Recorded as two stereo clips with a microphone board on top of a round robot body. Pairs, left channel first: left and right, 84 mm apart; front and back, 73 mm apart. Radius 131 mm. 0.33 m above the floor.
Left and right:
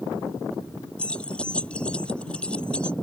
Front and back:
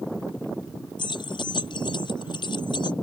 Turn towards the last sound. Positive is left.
turn(degrees=10)